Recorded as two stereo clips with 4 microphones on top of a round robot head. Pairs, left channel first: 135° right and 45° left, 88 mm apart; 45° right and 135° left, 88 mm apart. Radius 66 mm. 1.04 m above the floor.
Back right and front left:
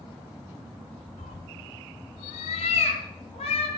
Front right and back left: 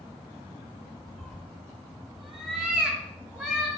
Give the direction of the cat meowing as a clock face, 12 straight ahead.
4 o'clock.